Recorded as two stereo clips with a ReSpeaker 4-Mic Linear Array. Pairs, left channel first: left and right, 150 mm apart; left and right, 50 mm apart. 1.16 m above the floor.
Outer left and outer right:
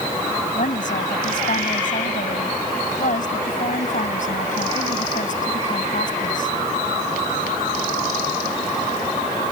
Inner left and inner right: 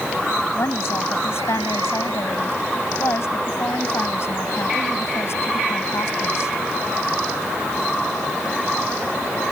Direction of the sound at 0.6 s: 60° left (ahead or behind).